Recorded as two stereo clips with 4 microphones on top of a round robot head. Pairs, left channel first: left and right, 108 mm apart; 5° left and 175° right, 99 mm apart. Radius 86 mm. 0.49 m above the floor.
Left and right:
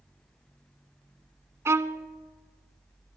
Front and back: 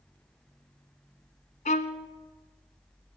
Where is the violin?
25° right, 0.7 m.